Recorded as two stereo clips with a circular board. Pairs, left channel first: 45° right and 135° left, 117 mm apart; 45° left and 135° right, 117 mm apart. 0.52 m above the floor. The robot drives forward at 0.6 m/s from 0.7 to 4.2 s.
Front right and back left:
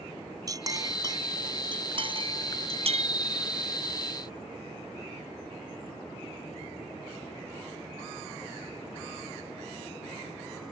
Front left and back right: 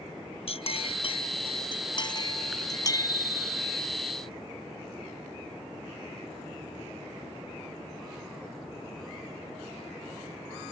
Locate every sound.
0.5 s a clink: 80° left; by 3.1 s 105° left
2.9 s a bicycle bell: 155° left